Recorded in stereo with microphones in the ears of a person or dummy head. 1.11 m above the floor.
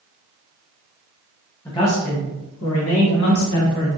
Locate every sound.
1.6 s a man speaking: 15° left (ahead or behind), 0.7 m; by 3.9 s 85° left, 1.7 m